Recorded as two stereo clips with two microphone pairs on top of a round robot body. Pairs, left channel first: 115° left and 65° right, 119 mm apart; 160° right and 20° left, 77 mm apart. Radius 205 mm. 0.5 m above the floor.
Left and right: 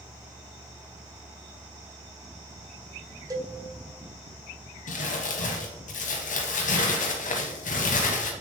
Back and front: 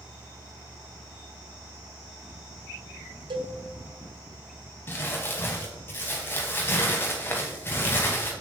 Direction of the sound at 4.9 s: 135° left.